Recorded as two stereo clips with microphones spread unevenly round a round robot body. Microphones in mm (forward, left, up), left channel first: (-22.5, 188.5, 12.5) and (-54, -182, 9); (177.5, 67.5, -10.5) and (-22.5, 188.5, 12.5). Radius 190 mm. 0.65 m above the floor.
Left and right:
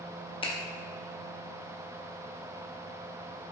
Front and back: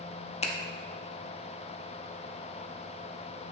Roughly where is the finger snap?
Ahead.